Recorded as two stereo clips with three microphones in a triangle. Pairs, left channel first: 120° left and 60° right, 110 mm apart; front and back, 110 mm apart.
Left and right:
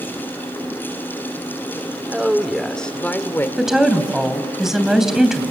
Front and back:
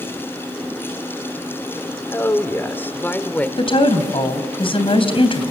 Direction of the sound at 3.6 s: 25° left.